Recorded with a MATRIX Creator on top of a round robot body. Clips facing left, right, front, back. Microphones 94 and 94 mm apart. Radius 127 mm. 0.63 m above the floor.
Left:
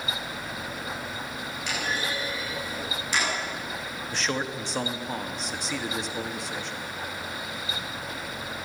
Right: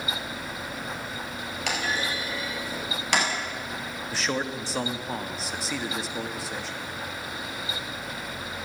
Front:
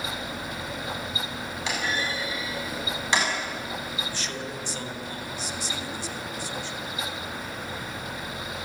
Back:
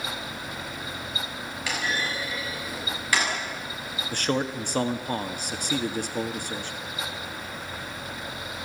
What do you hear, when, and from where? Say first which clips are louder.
1.7 s a clunk: right 2 dB, even; 70° right, 7 m
4.1 s a man speaking: right 1 dB, back 7 dB; 175° right, 1.7 m